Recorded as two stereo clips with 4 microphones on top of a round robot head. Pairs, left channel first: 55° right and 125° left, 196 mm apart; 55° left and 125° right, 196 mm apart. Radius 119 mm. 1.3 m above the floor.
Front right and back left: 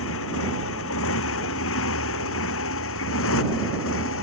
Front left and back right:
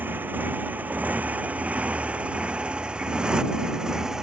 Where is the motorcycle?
45° right; by 4.2 s 40° right.